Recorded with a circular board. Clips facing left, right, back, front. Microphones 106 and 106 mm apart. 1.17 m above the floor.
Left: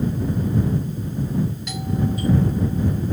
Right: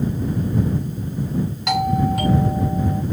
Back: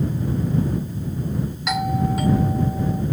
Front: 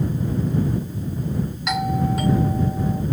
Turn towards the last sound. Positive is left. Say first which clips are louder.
# right 6 dB, even
turn(degrees=-90)